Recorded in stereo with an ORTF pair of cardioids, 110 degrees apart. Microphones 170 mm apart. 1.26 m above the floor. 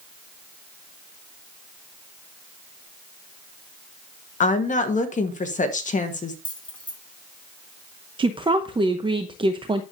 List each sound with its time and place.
4.4 s a woman speaking: 55° left, 1.3 m
6.5 s keys jangling: 10° left, 2.5 m
8.2 s a woman speaking: 30° right, 0.8 m